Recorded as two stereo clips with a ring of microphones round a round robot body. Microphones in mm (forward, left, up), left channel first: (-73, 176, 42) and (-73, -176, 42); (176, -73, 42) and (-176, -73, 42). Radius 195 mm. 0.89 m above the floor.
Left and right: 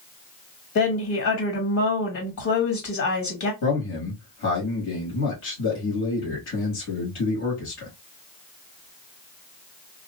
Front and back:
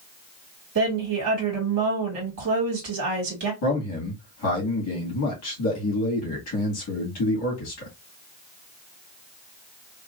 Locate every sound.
0.8 s a woman speaking: 130° left, 1.8 m
3.6 s a man speaking: 40° left, 1.5 m